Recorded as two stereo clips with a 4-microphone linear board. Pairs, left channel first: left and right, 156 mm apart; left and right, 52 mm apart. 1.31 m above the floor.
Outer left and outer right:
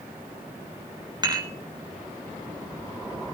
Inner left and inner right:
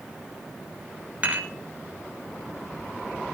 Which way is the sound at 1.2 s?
30° right (ahead or behind).